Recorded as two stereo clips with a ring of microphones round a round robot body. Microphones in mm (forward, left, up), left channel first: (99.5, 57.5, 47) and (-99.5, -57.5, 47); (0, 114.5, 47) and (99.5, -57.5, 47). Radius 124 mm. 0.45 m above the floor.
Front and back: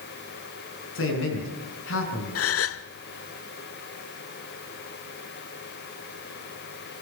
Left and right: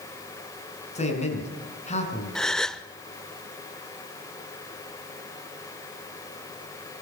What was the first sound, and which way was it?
A man speaking, 65° left.